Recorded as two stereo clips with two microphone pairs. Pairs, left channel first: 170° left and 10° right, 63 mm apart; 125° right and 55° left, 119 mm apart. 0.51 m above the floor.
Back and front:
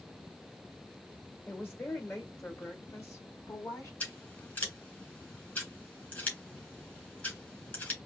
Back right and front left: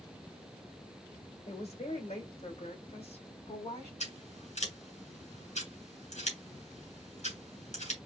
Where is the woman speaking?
140° right, 2.5 m; by 3.9 s 155° right, 3.5 m.